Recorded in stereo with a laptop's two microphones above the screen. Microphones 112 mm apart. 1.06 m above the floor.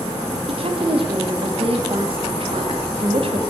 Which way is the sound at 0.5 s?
55° right (ahead or behind).